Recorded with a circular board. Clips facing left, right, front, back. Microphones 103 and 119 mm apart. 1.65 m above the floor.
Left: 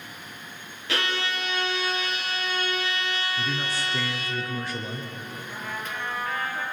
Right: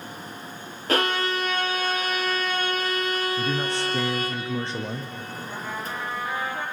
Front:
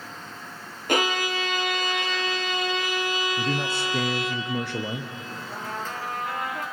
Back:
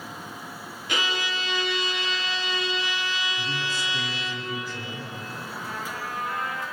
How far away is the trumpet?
About 6 m.